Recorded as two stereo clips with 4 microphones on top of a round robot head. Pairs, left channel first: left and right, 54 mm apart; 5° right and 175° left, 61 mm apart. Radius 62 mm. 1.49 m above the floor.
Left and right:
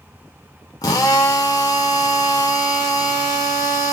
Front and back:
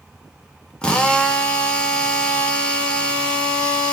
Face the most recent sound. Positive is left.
turn(degrees=70)